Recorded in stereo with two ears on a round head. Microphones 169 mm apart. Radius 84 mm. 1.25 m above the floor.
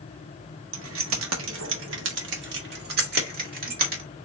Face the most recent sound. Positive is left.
turn(degrees=-45)  # may be behind; listen again after turning